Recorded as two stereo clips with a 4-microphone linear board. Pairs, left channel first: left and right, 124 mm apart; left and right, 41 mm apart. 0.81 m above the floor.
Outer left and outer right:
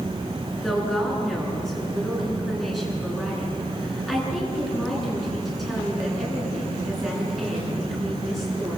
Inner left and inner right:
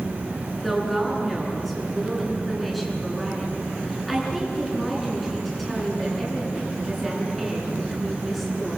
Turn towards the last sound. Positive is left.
turn(degrees=0)  # may be behind; listen again after turning